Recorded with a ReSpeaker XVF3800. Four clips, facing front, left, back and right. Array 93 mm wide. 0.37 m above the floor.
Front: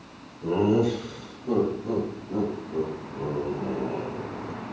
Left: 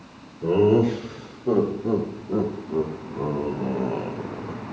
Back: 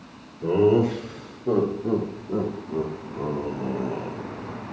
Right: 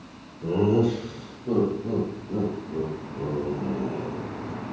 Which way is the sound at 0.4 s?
130° left.